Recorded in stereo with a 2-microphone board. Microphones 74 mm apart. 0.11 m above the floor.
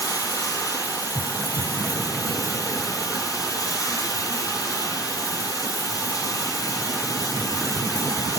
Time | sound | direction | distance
0.0 | running water | 55° left (ahead or behind) | 1.2 m